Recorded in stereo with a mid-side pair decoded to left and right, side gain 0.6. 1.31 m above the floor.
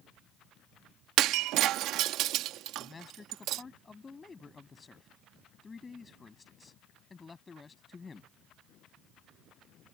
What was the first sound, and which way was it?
Breaking glass, 65° right.